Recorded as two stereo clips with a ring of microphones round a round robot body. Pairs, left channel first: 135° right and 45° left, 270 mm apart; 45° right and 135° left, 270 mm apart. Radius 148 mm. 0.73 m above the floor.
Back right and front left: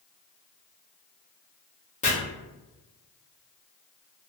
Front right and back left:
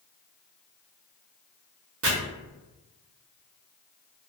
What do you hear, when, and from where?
2.0 s chopping: 165° left, 1.2 m